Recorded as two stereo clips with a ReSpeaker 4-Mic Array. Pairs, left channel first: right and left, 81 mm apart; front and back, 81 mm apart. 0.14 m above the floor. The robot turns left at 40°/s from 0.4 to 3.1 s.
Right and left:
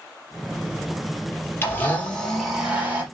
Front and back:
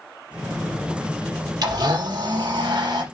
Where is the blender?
150° right, 4 m; by 3.0 s 155° left, 4 m.